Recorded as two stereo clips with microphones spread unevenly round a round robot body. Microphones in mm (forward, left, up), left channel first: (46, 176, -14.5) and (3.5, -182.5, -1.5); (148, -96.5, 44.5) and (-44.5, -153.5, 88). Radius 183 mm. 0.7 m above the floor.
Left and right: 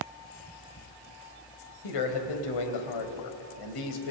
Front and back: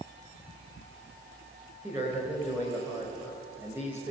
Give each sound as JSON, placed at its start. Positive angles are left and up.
{"t": 1.8, "sound": "a man speaking", "azimuth_deg": 110, "distance_m": 3.0}